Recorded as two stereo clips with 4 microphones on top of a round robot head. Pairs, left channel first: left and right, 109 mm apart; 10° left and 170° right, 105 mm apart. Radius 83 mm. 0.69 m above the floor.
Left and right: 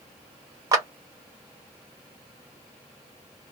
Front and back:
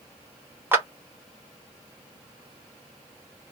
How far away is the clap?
About 0.9 m.